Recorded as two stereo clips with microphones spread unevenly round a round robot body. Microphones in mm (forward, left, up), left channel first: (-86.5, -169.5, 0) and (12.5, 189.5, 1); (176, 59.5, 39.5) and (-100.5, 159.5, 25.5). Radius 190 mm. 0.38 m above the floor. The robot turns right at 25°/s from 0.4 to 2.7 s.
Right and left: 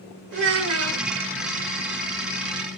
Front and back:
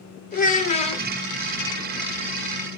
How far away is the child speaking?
About 0.9 m.